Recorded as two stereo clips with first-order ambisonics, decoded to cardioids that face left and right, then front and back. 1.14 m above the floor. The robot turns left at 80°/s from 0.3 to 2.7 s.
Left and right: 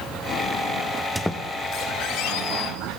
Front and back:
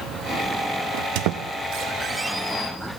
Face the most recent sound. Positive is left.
turn(degrees=60)